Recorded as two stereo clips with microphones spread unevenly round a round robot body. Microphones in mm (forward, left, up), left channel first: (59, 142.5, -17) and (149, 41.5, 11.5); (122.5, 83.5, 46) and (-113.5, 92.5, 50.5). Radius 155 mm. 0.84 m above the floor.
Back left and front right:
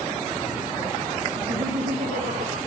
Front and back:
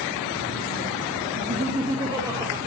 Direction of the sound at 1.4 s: 120° right.